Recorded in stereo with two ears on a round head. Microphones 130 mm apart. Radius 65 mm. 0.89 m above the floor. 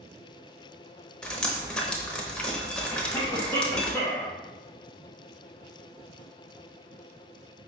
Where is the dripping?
5° left (ahead or behind), 0.7 m.